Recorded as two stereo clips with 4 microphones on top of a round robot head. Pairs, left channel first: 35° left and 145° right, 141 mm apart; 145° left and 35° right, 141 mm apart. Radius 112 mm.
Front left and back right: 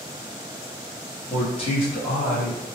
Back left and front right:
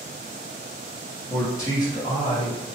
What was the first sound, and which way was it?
A man speaking, 70° left.